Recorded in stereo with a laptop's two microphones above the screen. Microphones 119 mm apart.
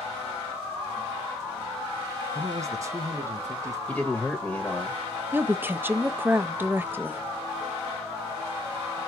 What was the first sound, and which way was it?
A man speaking, 30° right (ahead or behind).